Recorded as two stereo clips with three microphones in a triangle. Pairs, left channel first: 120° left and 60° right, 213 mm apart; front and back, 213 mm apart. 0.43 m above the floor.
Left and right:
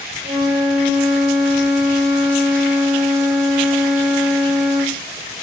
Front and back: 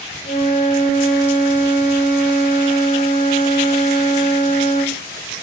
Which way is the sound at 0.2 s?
20° right.